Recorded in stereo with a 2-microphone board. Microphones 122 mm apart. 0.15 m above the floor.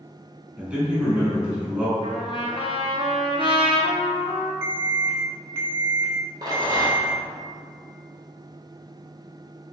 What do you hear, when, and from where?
0.6 s a man speaking: 10° right (ahead or behind), 1.1 m
2.0 s a trumpet: 45° left (ahead or behind), 0.8 m
4.6 s an alarm: 20° right (ahead or behind), 0.8 m
6.4 s a rattle: 35° right (ahead or behind), 1.1 m